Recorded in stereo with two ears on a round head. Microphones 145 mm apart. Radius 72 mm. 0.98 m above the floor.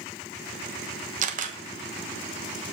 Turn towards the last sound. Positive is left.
turn(degrees=-50)  # may be behind; listen again after turning